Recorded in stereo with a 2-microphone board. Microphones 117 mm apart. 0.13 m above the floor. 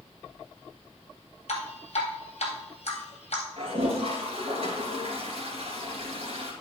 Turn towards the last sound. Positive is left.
turn(degrees=-55)  # may be behind; listen again after turning